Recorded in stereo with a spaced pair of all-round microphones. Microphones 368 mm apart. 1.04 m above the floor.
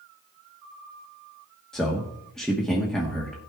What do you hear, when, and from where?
1.7 s a man speaking: centre (ahead or behind), 1.2 m